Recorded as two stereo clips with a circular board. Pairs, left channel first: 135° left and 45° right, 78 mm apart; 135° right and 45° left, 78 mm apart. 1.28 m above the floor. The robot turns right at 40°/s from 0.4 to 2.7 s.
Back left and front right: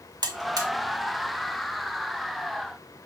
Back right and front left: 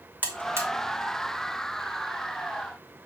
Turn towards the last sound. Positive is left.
turn(degrees=75)